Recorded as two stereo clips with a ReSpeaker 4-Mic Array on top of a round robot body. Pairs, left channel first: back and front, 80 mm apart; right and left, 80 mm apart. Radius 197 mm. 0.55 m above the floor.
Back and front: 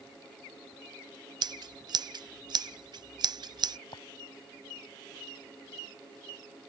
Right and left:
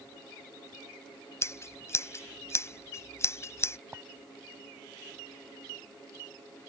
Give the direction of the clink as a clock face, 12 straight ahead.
7 o'clock.